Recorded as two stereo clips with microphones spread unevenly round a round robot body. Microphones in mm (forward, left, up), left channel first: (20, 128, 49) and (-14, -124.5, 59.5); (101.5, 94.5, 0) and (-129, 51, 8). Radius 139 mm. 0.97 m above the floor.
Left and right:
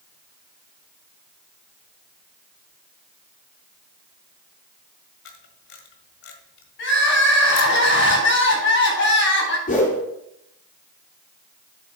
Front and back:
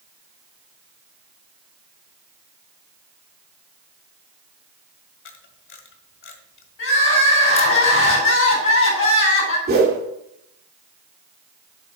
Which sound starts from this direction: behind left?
A whoosh, at 9.7 s.